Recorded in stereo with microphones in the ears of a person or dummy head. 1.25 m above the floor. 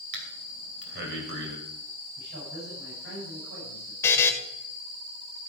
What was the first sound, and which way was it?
Breathing, 60° right (ahead or behind).